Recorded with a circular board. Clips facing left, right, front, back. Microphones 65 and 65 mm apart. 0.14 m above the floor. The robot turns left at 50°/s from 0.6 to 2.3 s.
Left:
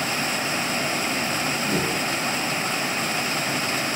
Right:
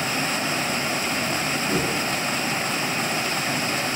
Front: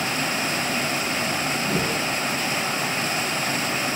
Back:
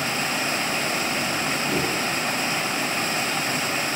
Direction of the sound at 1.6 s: 10° left.